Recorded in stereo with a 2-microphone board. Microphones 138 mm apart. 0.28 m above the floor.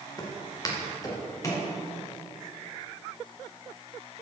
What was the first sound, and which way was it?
Footsteps, 30° left (ahead or behind).